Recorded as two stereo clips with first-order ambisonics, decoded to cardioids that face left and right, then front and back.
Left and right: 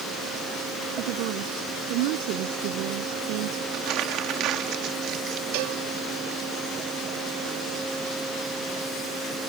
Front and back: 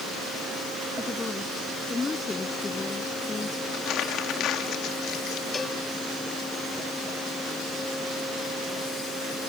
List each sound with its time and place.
1.0 s a woman speaking: 75° right
3.7 s crumpling: 45° right
5.5 s a cowbell: 75° right